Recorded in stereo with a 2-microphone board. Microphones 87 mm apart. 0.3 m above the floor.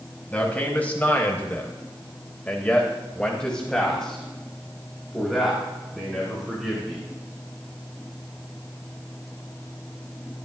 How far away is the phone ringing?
No phone ringing in this recording.